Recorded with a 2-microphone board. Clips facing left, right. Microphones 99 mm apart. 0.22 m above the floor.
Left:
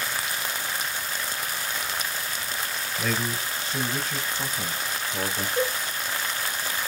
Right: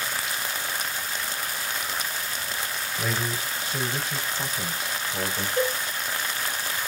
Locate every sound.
3.0 s a man speaking: 10° right (ahead or behind), 4 m; by 5.5 s centre (ahead or behind), 5.5 m
5.6 s a cowbell: 15° left (ahead or behind), 6.5 m